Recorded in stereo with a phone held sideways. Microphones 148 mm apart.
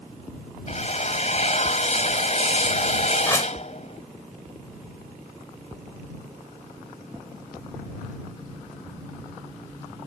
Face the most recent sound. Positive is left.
turn(degrees=20)  # may be behind; listen again after turning